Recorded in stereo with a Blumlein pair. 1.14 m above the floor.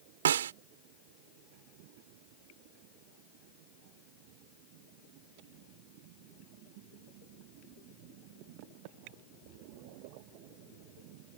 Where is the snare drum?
60° right.